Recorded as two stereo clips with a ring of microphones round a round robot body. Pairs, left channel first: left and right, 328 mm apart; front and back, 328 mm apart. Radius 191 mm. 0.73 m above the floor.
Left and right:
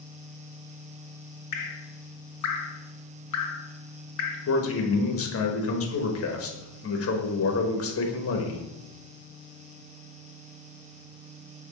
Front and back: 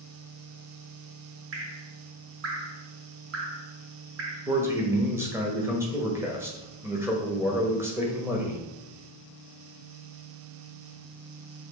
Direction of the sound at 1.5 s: 125° left.